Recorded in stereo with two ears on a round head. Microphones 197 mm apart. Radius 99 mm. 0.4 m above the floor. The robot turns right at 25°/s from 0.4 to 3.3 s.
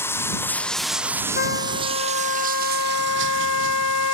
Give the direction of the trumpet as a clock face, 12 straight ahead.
11 o'clock.